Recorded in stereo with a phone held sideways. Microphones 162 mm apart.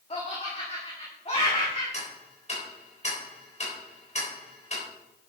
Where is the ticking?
40° left (ahead or behind), 4 m.